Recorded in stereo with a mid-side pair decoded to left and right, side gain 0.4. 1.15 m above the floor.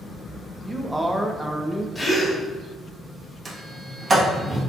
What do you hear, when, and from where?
0.6 s a man speaking: 5° right, 0.8 m
1.9 s a gasp: 20° left, 1.8 m
3.5 s a sliding door: 35° right, 1.4 m